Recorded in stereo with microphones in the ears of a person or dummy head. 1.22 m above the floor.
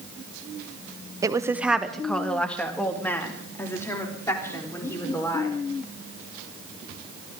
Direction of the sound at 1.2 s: 20° right (ahead or behind).